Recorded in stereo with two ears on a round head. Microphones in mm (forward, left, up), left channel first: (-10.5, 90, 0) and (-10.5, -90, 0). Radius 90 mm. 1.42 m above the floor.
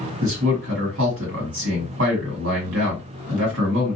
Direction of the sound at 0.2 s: 60° right (ahead or behind).